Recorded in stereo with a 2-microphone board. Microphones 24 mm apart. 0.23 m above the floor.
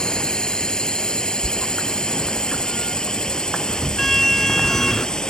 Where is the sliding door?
15° left (ahead or behind).